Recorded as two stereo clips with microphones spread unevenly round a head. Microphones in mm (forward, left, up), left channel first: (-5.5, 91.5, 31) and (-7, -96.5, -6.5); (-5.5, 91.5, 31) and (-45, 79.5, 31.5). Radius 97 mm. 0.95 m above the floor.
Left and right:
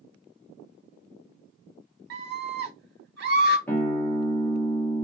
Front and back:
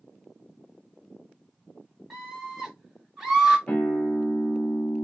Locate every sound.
2.1 s a scream: 70° right, 1.9 m
3.7 s a guitar: straight ahead, 1.1 m